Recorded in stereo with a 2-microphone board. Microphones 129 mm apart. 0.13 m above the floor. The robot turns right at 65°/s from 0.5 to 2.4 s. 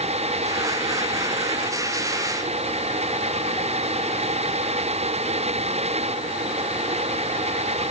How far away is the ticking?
No ticking in this recording.